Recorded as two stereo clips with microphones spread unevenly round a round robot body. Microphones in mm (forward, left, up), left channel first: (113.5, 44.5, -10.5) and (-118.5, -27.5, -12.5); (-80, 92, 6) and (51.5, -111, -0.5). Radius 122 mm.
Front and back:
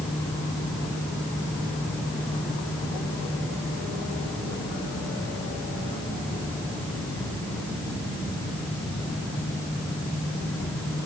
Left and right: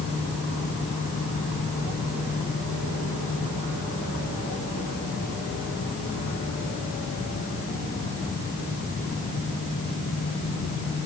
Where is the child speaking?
No child speaking in this recording.